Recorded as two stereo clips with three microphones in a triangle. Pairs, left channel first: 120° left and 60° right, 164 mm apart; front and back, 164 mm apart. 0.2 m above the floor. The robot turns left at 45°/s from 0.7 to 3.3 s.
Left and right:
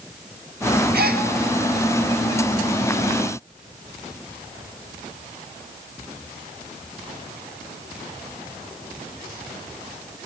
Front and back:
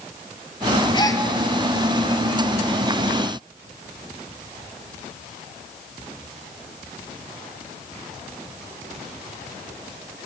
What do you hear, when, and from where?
0.9 s a gasp: 60° right, 0.9 m; by 1.2 s 75° right, 0.9 m